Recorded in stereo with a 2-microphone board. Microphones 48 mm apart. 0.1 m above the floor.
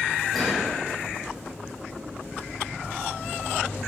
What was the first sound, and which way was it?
A gunshot, centre (ahead or behind).